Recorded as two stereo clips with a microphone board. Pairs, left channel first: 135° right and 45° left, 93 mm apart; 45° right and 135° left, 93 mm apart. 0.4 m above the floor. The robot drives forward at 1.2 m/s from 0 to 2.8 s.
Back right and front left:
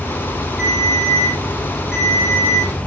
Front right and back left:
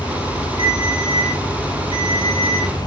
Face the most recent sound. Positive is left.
turn(degrees=130)